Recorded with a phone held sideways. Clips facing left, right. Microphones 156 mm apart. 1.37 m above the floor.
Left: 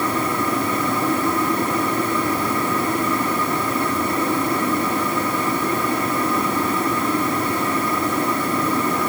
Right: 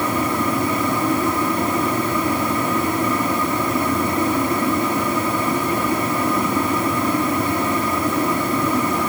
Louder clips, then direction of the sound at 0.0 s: Right 1 dB; 20° right (ahead or behind).